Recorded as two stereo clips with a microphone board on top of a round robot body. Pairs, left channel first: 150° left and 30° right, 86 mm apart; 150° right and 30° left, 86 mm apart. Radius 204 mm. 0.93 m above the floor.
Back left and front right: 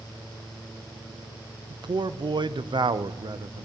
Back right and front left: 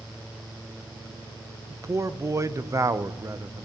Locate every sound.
1.7 s a man speaking: 20° right, 0.7 m